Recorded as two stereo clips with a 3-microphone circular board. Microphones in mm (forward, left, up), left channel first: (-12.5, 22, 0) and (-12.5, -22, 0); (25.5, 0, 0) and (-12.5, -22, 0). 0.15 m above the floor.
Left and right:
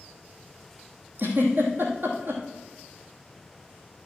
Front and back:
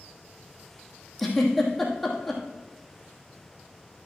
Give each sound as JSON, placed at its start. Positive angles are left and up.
{"t": 1.2, "sound": "a giggle", "azimuth_deg": -60, "distance_m": 2.0}